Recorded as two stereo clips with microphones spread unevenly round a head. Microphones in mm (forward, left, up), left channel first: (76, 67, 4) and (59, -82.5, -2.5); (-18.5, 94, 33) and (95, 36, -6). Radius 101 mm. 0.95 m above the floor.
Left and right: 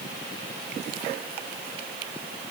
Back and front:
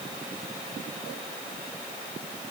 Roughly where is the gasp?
No gasp in this recording.